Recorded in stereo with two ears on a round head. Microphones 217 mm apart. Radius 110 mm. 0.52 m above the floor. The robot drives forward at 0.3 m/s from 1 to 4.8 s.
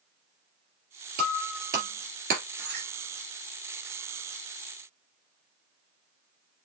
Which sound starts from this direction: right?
Breaking glass, at 1.2 s.